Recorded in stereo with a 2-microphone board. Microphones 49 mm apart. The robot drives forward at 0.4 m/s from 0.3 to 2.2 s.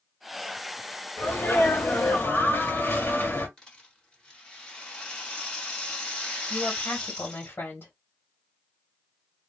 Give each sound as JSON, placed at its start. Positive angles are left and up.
{"t": 1.2, "sound": "a sneeze", "side_deg": 50, "distance_m": 1.6}
{"t": 3.6, "sound": "a rattle", "side_deg": 20, "distance_m": 1.7}
{"t": 6.5, "sound": "a woman speaking", "side_deg": 55, "distance_m": 1.3}